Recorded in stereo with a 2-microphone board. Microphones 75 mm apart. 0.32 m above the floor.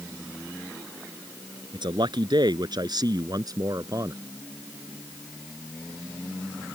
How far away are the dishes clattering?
No dishes clattering in this recording.